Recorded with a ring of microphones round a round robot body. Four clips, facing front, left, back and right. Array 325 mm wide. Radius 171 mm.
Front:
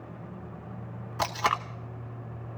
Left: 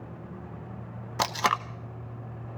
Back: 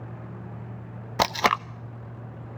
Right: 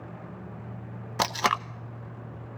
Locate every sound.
1.2 s tape being pulled: 175° right, 0.5 m